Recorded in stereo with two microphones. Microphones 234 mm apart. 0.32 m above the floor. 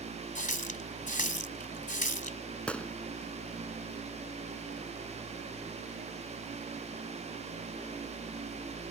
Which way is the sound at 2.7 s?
5° left (ahead or behind).